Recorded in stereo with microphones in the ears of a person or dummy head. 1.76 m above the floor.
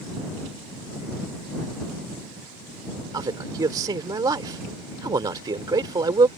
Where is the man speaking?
20° right (ahead or behind).